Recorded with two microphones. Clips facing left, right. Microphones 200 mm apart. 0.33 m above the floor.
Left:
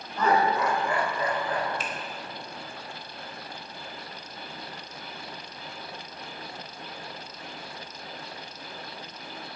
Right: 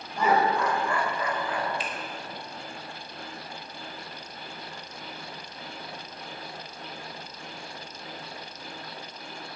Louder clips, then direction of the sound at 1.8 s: Even; 40° left (ahead or behind).